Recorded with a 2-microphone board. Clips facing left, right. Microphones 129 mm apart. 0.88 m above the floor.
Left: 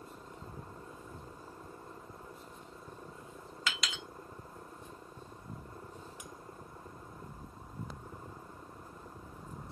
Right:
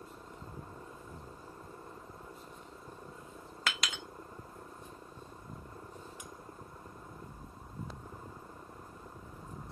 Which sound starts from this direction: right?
A clink, at 3.7 s.